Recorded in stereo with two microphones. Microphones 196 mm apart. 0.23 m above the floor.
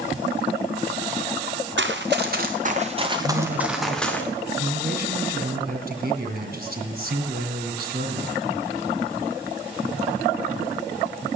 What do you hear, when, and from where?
1.8 s running footsteps: 70° right (ahead or behind), 1.9 m; by 4.2 s 10° left (ahead or behind), 2 m
3.2 s a man speaking: 50° right (ahead or behind), 2.5 m